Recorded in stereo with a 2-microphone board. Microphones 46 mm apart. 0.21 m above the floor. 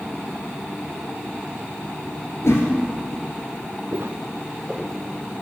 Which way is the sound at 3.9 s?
70° right (ahead or behind).